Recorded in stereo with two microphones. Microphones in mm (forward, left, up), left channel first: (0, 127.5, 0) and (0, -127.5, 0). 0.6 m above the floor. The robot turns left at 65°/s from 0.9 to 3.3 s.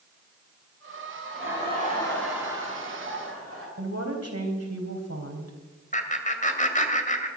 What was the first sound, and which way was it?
Laughter, 65° left.